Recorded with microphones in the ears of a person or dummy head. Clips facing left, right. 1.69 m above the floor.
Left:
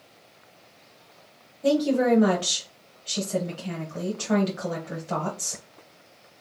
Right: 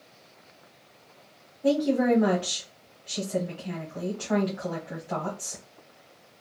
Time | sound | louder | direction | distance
1.6 | a woman speaking | left 1 dB | 65° left (ahead or behind) | 0.9 m